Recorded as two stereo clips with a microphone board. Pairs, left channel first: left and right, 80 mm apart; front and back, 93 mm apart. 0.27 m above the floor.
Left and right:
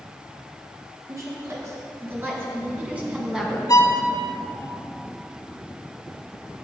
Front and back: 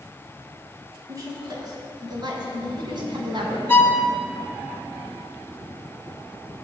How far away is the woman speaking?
About 4 m.